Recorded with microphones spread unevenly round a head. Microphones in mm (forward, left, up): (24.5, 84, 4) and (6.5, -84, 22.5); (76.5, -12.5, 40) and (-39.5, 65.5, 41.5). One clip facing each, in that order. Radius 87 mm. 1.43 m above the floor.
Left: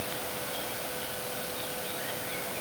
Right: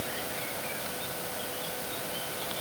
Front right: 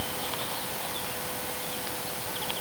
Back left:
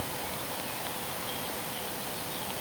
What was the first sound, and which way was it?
Only background noise.